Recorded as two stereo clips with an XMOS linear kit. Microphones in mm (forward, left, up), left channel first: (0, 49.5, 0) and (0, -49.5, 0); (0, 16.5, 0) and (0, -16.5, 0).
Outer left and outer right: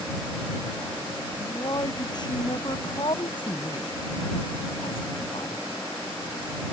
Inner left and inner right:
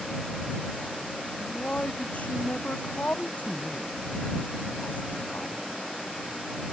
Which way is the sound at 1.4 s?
40° left (ahead or behind).